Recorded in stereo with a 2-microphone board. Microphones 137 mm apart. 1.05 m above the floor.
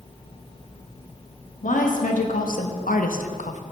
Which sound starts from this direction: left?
A woman speaking, at 1.6 s.